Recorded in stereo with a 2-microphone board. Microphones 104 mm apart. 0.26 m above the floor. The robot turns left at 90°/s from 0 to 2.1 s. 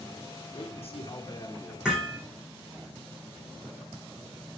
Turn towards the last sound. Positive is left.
turn(degrees=15)  # may be behind; listen again after turning